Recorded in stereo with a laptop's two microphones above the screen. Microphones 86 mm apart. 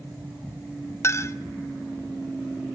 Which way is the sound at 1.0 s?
35° left (ahead or behind).